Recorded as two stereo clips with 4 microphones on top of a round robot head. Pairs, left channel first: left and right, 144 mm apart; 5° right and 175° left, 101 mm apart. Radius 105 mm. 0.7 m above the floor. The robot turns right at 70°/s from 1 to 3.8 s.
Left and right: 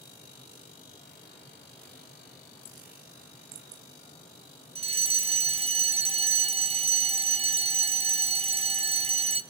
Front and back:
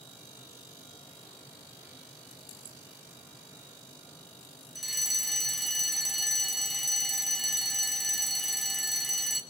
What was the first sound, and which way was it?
A fire alarm, 95° right.